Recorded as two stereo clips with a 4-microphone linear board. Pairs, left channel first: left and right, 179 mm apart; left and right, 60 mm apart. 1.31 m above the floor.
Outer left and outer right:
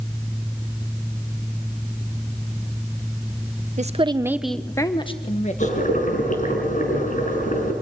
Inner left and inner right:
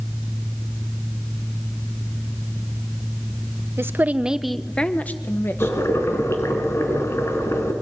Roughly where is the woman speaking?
Right.